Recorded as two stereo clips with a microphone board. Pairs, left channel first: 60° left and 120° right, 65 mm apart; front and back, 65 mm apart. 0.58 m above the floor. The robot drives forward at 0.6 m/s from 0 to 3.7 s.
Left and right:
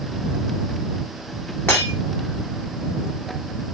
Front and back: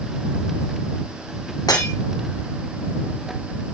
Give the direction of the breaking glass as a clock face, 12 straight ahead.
12 o'clock.